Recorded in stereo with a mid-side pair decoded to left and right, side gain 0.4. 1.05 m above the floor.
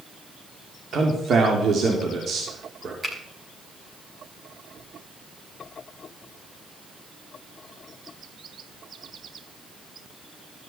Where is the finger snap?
20° right, 6.5 m.